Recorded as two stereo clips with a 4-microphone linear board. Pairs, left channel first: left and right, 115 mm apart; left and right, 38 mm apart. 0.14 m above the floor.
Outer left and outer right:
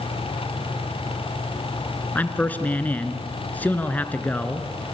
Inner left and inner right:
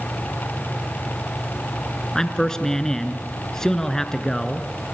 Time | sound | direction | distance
2.1 | a man speaking | 15° left (ahead or behind) | 2 m